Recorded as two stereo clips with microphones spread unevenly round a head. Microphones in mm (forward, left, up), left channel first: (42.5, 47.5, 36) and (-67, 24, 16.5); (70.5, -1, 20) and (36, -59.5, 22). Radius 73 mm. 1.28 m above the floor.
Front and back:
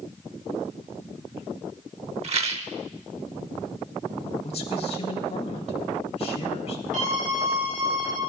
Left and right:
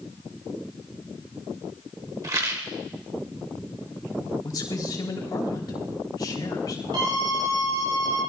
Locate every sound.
2.2 s a rattle: 165° right, 1.3 m
4.4 s a man speaking: 45° left, 3.5 m
6.9 s a scream: 155° right, 9 m